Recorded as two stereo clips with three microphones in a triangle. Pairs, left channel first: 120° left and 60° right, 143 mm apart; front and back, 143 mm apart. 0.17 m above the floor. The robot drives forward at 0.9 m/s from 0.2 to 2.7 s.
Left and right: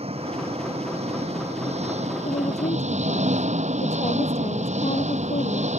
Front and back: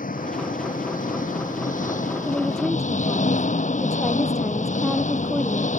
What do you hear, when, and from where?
0.0 s an engine running: 15° right; by 5.8 s 30° right
2.2 s a woman speaking: 85° left